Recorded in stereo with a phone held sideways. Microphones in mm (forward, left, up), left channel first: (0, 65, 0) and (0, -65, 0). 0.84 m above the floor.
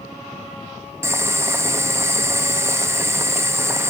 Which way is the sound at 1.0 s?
20° right (ahead or behind).